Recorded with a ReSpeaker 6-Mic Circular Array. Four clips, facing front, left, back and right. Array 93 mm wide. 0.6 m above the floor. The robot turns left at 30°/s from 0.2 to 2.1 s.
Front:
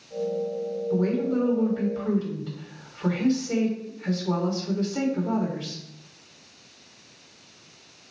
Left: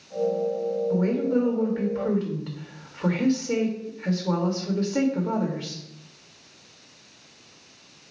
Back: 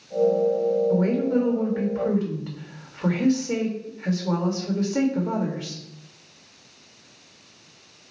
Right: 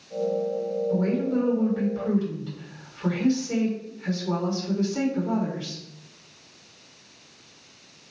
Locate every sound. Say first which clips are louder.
0.9 s a woman speaking: left 1 dB, back 3 dB; 165° left, 2.5 m; by 5.8 s 130° left, 2.5 m